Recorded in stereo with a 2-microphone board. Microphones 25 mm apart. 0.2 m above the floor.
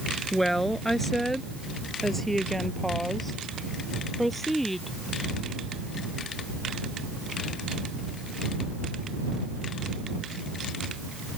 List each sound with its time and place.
0.3 s a woman speaking: 10° left (ahead or behind); by 5.0 s 5° left (ahead or behind)